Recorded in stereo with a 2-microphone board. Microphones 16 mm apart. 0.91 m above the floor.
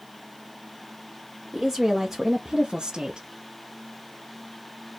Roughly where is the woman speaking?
Centre.